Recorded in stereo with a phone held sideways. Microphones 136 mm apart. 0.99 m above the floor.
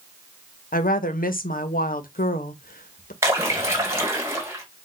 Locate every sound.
0.7 s a woman speaking: 80° left, 0.8 m
3.2 s a splash: 20° right (ahead or behind), 1.6 m